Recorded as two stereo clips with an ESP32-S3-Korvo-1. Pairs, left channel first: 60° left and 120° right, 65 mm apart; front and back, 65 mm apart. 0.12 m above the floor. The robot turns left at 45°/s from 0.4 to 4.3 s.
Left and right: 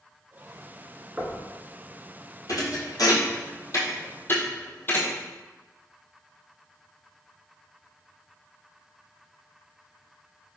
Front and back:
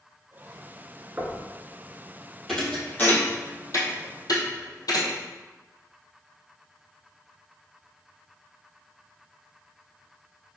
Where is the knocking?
175° right, 0.9 m; by 1.4 s 175° left, 0.9 m.